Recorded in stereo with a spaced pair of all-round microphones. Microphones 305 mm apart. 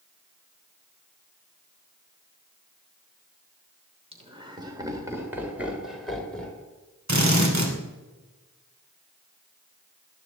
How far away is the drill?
About 2.5 m.